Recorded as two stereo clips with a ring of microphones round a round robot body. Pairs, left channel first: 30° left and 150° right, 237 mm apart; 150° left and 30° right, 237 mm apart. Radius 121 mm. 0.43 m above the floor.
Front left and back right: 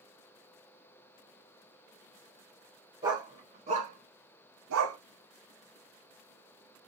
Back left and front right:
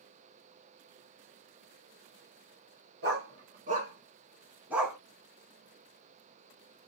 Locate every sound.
3.0 s a dog barking: 75° right, 2.5 m; by 5.0 s 120° right, 1.7 m